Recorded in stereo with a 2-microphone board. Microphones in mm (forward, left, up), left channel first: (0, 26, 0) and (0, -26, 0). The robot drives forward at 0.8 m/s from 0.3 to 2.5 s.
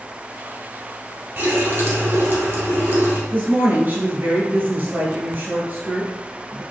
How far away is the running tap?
About 1.5 m.